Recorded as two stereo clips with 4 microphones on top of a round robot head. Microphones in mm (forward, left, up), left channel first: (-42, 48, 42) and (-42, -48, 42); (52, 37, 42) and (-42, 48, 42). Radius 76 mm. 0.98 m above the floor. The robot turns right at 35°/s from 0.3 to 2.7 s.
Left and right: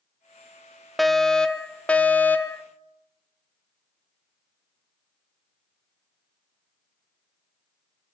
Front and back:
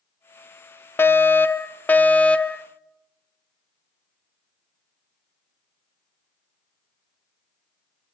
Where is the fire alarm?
Straight ahead, 1.3 m; by 2.6 s 60° left, 1.3 m.